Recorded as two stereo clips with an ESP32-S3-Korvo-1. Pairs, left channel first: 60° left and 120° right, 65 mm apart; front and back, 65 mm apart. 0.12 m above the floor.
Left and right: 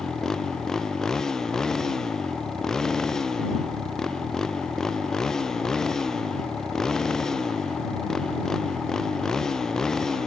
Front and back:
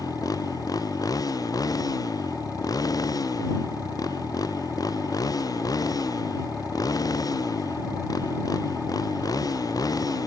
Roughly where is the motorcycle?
Ahead.